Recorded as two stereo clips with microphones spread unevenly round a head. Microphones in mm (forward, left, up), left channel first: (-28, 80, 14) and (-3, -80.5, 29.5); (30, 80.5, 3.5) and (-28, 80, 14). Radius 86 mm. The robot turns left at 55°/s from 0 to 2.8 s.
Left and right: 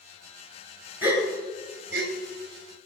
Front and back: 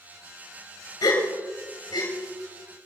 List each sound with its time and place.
1.0 s a gasp: straight ahead, 3.5 m; by 2.1 s 60° right, 3.5 m